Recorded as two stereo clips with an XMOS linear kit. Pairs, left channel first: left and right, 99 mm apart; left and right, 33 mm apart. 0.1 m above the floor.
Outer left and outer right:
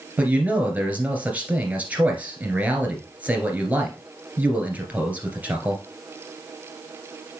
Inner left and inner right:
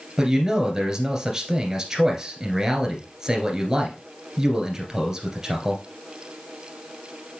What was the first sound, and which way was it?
A man speaking, 15° right (ahead or behind).